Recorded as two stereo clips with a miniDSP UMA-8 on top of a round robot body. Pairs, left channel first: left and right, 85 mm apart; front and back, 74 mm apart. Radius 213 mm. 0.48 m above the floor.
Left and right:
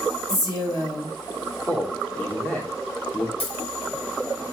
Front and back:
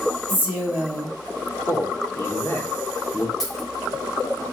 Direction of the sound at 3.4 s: 85° left.